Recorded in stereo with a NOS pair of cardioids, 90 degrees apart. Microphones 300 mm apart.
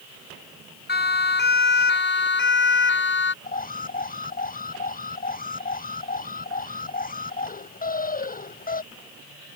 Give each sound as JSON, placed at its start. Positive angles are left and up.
{"t": 0.9, "sound": "a siren", "azimuth_deg": 35}
{"t": 3.4, "sound": "an alarm", "azimuth_deg": 30}